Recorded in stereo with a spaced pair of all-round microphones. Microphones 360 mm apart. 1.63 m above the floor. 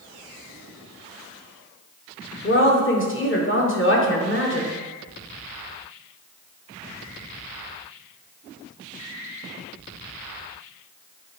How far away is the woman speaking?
About 1.2 m.